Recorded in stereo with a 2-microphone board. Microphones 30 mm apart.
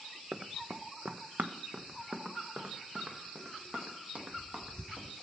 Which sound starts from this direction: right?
Running footsteps, at 0.3 s.